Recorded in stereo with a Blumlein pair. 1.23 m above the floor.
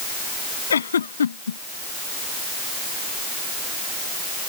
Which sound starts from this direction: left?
A giggle, at 0.7 s.